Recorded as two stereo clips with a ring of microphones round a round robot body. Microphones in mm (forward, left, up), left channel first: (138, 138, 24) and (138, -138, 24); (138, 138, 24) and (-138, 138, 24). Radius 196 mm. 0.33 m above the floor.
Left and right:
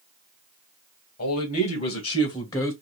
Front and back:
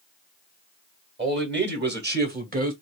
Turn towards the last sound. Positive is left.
turn(degrees=165)